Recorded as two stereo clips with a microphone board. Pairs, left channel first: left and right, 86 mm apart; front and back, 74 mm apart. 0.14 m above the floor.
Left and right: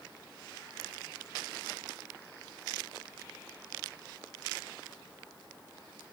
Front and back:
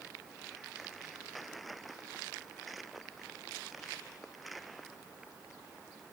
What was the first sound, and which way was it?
Only background noise.